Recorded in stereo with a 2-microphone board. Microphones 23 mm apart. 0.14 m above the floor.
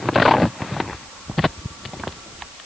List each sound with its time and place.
Only background noise.